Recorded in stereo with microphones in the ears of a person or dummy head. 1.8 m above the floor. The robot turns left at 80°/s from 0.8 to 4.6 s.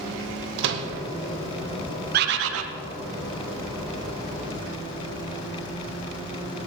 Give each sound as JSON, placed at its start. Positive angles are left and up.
{"t": 0.6, "sound": "a microwave", "side_deg": -70, "distance_m": 1.0}
{"t": 2.1, "sound": "a bird", "azimuth_deg": -55, "distance_m": 0.9}